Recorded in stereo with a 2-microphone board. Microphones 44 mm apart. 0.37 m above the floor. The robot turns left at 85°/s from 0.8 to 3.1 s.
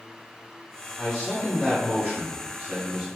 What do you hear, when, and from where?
1.0 s a man speaking: 10° left (ahead or behind), 1.6 m; by 3.0 s 10° right (ahead or behind), 1.6 m